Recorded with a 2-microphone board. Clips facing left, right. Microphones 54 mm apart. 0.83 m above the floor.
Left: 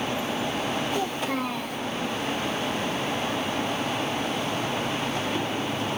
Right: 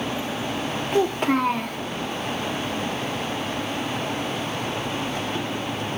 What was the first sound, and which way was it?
A child speaking, 60° right (ahead or behind).